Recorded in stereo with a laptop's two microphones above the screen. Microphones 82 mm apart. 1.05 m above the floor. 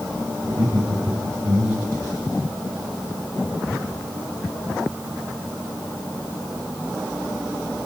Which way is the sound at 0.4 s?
80° right.